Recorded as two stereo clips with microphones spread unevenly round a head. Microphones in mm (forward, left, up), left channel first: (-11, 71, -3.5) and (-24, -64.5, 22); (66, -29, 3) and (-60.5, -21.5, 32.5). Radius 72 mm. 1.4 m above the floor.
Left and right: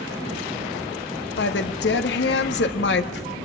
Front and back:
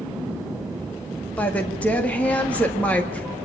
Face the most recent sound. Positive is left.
turn(degrees=80)